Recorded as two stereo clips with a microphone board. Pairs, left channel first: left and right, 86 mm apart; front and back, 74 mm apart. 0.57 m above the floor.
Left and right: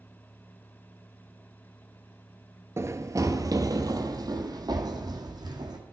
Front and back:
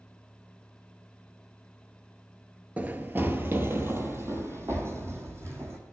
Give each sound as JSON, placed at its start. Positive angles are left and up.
{"t": 2.8, "sound": "running footsteps", "azimuth_deg": -125, "distance_m": 0.6}